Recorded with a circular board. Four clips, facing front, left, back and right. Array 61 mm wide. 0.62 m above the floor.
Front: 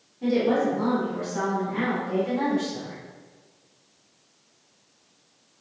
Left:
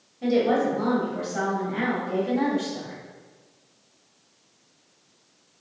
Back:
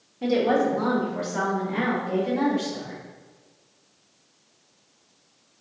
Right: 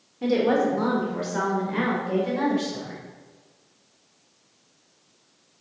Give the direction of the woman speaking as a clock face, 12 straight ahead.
4 o'clock.